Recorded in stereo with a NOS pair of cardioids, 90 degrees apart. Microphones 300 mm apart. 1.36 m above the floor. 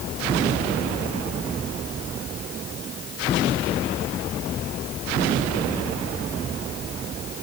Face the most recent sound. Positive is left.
No sound to turn to.